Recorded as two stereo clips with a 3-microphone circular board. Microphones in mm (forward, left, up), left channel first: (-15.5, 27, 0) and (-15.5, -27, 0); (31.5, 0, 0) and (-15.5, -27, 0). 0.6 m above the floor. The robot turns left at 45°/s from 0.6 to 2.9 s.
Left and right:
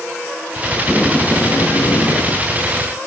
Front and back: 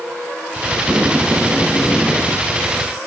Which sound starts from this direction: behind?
Tape being pulled, at 0.8 s.